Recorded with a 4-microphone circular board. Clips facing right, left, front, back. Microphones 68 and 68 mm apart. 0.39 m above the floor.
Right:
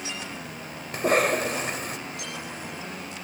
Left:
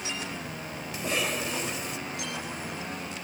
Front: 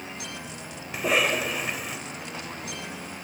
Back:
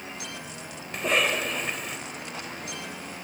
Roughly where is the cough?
Right.